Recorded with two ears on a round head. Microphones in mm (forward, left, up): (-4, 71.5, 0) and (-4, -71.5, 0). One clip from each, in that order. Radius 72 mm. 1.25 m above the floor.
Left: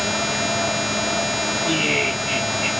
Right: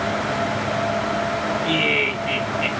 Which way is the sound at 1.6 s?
20° right (ahead or behind).